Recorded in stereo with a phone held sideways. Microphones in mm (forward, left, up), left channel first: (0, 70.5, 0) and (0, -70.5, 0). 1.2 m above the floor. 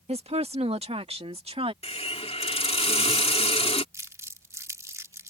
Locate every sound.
0.1 s a woman speaking: 45° right (ahead or behind)
1.8 s a hiss: 45° left (ahead or behind)
3.9 s crumpling: 20° right (ahead or behind)